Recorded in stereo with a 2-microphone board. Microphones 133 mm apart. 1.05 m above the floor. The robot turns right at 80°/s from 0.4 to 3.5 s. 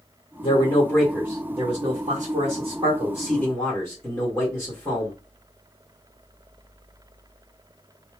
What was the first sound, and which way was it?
A man speaking, 120° left.